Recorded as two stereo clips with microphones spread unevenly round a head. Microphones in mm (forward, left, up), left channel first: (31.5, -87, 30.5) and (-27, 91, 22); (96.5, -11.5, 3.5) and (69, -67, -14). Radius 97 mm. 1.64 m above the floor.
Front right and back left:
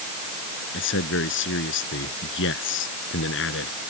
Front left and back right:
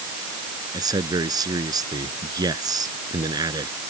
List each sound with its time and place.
0.7 s a man speaking: 100° right